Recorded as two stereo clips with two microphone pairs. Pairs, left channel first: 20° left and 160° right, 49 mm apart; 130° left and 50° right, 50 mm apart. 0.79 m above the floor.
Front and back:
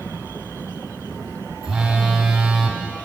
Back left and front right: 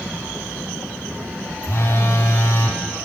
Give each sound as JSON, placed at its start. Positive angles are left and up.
{"t": 1.6, "sound": "a phone buzzing", "azimuth_deg": 120, "distance_m": 1.6}